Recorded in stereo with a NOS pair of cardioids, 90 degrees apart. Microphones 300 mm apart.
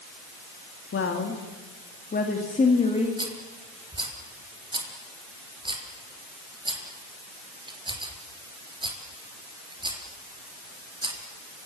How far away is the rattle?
About 4 m.